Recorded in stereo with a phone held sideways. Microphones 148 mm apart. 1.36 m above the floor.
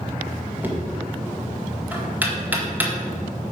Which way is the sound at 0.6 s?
10° right (ahead or behind).